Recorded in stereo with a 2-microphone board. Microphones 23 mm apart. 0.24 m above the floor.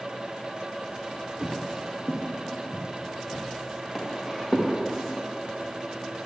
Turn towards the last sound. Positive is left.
turn(degrees=25)  # may be behind; listen again after turning